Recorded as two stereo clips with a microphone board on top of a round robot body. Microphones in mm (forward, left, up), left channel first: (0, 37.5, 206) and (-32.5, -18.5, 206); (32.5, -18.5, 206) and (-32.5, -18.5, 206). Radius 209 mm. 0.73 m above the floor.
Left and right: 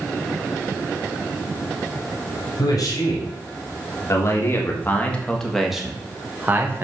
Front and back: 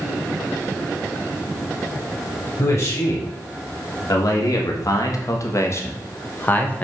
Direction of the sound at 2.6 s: 40° left.